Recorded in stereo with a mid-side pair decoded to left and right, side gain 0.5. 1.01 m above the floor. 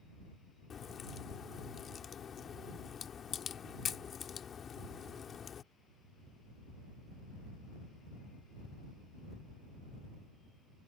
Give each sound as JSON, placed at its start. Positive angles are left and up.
{"t": 0.7, "sound": "a crack", "azimuth_deg": 45}